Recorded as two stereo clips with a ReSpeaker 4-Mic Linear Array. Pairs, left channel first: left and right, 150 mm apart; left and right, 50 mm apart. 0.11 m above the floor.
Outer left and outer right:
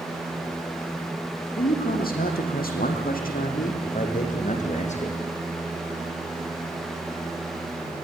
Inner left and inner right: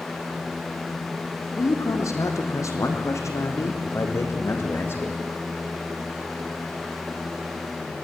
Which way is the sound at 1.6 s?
75° left (ahead or behind).